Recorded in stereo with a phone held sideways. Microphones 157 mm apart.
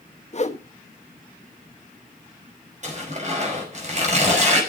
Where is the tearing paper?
50° right (ahead or behind), 5 m.